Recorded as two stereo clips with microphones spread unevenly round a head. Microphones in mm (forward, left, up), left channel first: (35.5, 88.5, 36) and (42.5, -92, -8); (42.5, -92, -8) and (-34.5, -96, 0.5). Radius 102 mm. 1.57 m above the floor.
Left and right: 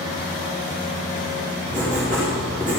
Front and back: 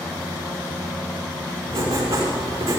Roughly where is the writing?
Behind.